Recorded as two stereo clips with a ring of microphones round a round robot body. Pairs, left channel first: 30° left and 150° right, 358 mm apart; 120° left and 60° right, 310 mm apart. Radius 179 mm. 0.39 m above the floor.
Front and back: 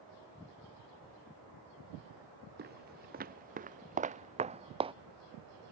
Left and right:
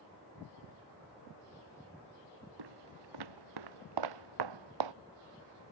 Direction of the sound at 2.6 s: 85° right.